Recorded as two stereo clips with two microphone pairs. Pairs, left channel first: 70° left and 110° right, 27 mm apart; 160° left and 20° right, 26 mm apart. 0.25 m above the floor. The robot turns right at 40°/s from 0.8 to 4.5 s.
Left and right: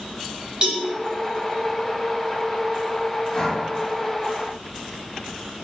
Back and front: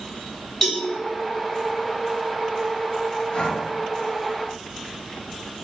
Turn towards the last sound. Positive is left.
turn(degrees=180)